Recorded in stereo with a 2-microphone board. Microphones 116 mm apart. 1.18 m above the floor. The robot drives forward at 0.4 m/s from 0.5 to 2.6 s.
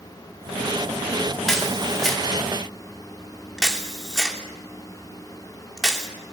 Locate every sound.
1.5 s a camera shutter: 5° left (ahead or behind), 2.5 m